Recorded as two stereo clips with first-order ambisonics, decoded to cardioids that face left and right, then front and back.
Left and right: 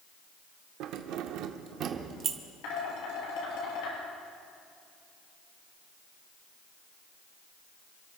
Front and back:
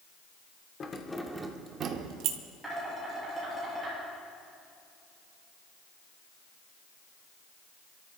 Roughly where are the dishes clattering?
Left.